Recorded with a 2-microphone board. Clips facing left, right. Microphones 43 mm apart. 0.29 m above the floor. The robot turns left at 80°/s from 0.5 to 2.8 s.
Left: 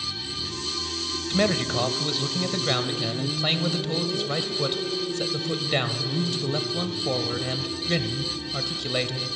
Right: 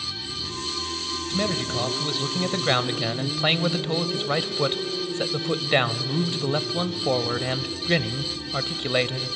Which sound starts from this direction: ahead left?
A man speaking, at 1.3 s.